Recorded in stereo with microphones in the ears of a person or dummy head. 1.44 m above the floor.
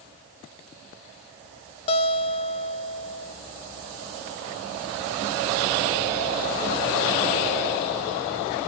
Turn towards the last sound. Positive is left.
turn(degrees=30)  # may be behind; listen again after turning